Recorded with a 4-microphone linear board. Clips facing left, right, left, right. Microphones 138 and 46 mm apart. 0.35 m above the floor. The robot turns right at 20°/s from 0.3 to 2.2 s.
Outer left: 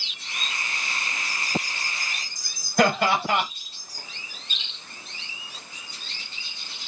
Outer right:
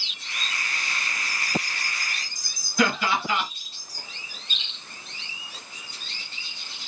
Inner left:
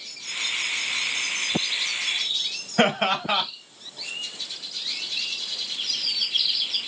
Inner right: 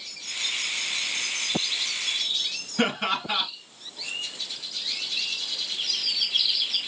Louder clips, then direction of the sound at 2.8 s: Outer left 3 dB, inner left 4 dB; 60° left (ahead or behind).